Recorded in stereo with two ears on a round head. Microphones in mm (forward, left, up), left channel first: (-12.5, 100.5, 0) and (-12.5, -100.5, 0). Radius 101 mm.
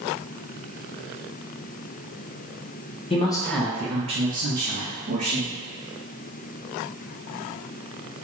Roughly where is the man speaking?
Left.